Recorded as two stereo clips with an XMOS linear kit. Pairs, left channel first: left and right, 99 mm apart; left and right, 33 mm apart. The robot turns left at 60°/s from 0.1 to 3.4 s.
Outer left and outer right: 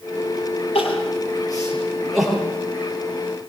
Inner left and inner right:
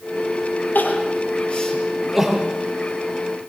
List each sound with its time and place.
0.8 s crying: 80° left, 9 m; by 2.5 s 20° right (ahead or behind), 9 m